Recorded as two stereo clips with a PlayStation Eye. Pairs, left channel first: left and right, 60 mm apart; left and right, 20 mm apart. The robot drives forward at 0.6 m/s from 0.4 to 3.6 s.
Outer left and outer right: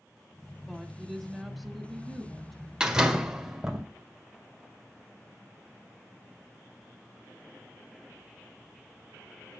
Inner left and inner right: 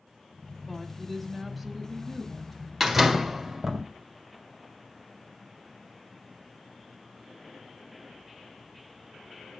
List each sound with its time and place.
0.7 s a woman speaking: centre (ahead or behind), 1.0 m
2.8 s a door slam: 15° right (ahead or behind), 1.4 m; by 3.8 s 10° right (ahead or behind), 1.8 m